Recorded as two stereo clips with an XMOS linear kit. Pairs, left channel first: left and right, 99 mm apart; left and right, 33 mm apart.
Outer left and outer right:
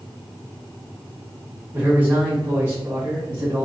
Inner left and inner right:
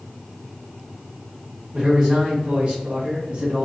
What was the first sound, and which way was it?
A man speaking, 15° right (ahead or behind).